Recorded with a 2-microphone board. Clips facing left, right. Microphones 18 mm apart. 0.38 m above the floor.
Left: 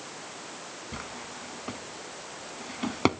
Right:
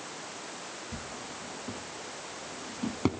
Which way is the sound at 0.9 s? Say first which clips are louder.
Left 1 dB; 45° left (ahead or behind).